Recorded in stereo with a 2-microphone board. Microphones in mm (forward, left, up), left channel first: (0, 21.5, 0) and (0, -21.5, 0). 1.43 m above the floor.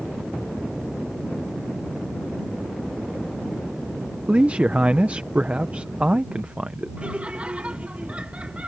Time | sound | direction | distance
4.3 | a man speaking | 30° right (ahead or behind) | ?
7.0 | laughter | 30° right (ahead or behind) | ?